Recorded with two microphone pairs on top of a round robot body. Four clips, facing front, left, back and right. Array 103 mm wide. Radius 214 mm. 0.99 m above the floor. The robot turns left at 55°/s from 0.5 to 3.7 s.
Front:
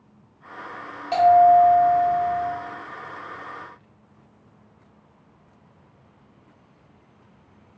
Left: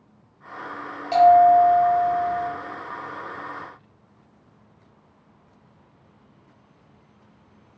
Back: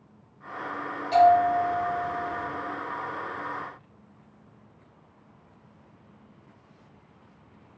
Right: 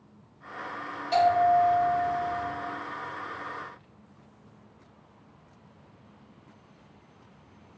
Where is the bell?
65° left, 0.6 m; by 2.5 s 10° right, 0.6 m.